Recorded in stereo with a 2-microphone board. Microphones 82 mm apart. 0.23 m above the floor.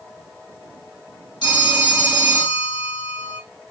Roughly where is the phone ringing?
Left.